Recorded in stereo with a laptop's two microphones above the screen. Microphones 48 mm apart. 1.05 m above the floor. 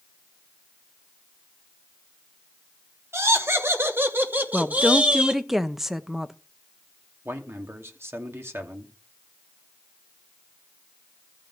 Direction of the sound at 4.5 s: 5° right (ahead or behind).